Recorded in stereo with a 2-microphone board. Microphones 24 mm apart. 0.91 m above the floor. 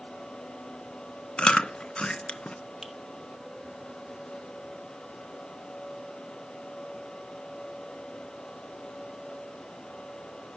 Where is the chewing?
50° left (ahead or behind), 0.6 m.